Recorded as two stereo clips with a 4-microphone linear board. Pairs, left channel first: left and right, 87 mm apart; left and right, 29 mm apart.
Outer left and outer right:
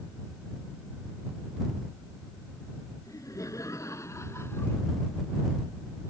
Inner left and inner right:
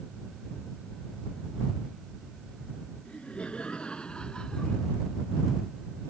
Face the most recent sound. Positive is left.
turn(degrees=25)  # may be behind; listen again after turning